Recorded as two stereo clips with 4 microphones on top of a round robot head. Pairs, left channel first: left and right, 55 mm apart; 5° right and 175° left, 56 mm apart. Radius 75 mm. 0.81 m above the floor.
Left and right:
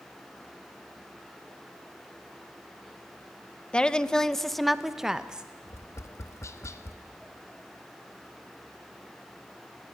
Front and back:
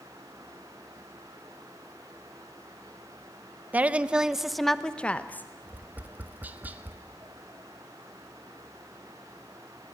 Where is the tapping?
115° left, 1.3 m.